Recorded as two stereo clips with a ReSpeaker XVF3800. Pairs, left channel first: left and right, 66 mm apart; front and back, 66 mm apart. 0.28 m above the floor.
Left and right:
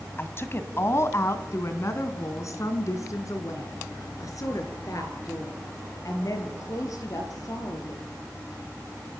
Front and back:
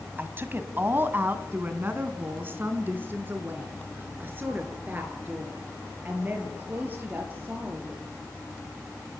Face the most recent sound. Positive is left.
turn(degrees=120)